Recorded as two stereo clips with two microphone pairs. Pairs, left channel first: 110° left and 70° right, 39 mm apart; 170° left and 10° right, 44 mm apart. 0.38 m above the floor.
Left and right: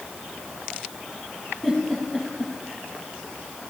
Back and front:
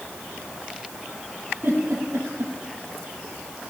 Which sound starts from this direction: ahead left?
A giggle, at 1.6 s.